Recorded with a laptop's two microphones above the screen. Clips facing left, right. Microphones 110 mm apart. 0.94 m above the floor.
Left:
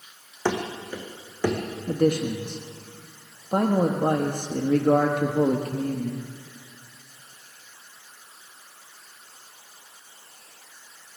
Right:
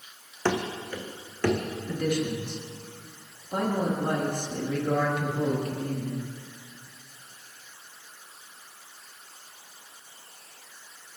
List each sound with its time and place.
0.5 s running footsteps: 10° left (ahead or behind), 2.5 m
1.9 s a man speaking: 45° left (ahead or behind), 1.2 m